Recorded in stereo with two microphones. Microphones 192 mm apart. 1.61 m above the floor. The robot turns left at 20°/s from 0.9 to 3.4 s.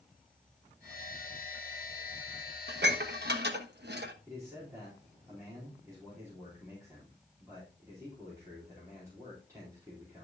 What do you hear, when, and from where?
2.7 s dishes clattering: 60° right (ahead or behind), 1.4 m
4.3 s a man speaking: 15° right (ahead or behind), 4.5 m